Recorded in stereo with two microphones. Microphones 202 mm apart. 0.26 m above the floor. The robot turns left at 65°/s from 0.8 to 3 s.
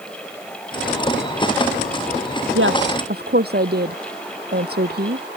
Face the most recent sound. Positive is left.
turn(degrees=-55)  # may be behind; listen again after turning